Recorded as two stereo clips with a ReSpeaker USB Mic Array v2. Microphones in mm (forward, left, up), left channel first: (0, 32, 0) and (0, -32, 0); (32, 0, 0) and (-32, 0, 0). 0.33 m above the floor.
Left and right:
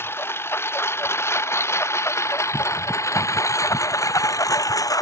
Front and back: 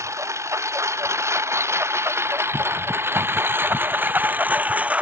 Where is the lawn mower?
140° left; by 5.0 s 110° left.